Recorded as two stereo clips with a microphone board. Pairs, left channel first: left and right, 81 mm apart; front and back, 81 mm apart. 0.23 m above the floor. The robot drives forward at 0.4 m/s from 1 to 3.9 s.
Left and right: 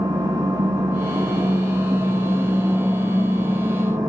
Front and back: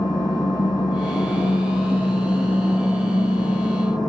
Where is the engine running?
40° right, 9 m; by 4.1 s 45° right, 8.5 m.